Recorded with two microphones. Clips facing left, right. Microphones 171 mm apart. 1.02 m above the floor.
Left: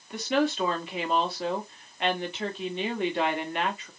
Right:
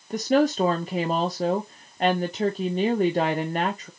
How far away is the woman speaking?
About 0.7 m.